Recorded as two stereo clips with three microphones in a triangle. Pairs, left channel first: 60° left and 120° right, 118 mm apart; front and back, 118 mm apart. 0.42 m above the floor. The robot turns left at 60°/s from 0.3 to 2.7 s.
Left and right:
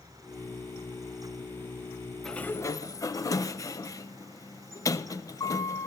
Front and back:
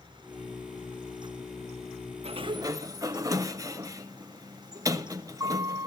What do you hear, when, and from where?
2.2 s a sliding door: 145° left, 0.6 m; by 5.9 s 120° left, 0.6 m